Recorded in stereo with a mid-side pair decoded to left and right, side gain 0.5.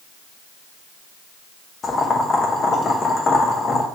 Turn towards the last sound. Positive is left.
turn(degrees=35)